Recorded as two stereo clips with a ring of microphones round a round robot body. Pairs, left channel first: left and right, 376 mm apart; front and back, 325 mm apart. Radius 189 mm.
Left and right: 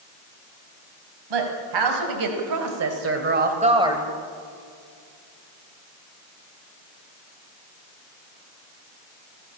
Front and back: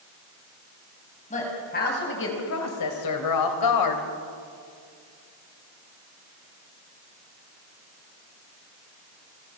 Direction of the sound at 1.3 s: 70° right.